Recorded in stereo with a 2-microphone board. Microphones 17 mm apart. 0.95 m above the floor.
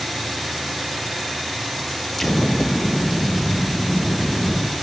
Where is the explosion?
15° left (ahead or behind), 0.6 m.